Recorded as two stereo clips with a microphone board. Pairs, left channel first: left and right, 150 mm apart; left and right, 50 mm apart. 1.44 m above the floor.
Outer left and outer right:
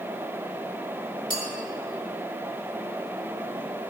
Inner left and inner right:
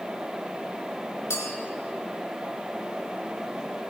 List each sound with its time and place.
1.3 s a clink: 70° left (ahead or behind), 3 m